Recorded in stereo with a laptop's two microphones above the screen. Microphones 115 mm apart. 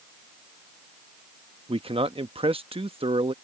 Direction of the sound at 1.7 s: 50° right (ahead or behind).